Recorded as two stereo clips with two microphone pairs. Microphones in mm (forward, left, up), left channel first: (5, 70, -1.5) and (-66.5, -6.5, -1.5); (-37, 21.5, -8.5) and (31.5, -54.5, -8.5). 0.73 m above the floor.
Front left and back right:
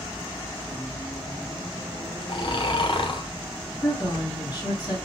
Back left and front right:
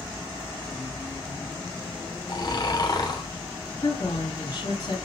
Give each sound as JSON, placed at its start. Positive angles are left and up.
{"t": 2.3, "sound": "snoring", "azimuth_deg": 85, "distance_m": 1.0}
{"t": 3.8, "sound": "a woman speaking", "azimuth_deg": 90, "distance_m": 2.5}